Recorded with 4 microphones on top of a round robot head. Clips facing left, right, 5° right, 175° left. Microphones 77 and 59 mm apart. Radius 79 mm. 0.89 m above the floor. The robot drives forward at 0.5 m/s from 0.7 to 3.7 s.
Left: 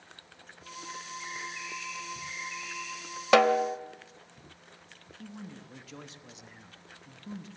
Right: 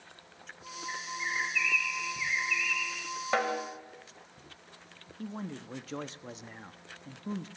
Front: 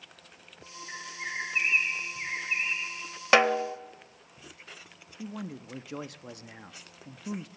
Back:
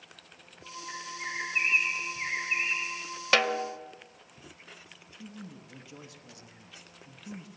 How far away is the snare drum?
About 1.0 m.